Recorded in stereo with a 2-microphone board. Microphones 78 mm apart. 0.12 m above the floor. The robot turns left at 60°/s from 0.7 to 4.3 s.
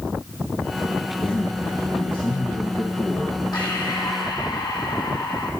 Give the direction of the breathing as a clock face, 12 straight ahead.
8 o'clock.